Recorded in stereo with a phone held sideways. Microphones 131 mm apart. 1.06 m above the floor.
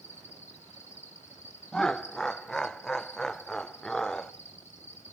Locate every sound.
0.0 s an insect: 60° left (ahead or behind), 2.5 m
1.7 s laughter: 5° left (ahead or behind), 0.6 m